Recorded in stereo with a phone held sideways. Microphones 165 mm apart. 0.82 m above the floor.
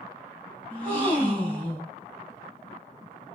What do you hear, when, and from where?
0.7 s a gasp: 30° right (ahead or behind), 2.5 m